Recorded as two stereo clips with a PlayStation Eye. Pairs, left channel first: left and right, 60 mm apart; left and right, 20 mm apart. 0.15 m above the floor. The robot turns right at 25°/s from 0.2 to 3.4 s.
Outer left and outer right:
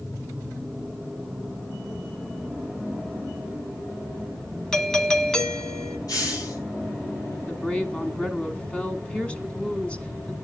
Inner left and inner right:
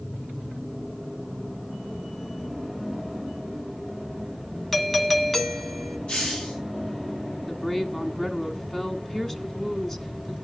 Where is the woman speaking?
20° left (ahead or behind), 1.4 m.